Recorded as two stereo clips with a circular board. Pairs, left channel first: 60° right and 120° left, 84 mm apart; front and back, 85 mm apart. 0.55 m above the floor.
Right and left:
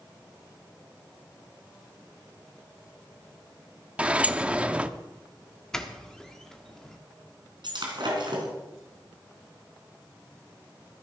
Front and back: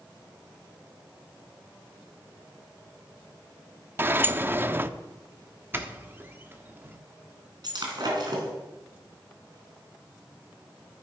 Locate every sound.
4.0 s a sliding door: 170° left, 0.5 m
5.7 s a doorbell: 140° right, 1.3 m
7.6 s breaking glass: 145° left, 3.5 m